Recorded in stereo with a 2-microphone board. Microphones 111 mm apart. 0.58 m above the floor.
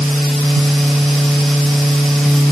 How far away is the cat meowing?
No cat meowing in this recording.